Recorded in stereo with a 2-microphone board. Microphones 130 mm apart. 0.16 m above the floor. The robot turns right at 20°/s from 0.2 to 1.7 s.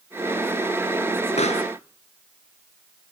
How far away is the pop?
About 2.5 m.